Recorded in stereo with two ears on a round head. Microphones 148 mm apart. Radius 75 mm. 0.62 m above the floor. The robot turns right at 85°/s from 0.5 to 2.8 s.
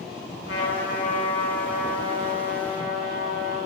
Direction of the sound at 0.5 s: 80° left.